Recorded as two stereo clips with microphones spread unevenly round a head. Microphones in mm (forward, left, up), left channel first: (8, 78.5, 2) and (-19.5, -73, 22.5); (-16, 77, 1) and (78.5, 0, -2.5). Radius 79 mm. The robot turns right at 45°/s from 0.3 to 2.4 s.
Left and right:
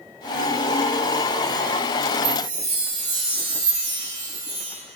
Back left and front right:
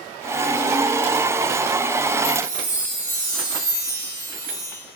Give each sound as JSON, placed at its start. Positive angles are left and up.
{"t": 2.2, "sound": "a chime", "azimuth_deg": -65, "distance_m": 1.8}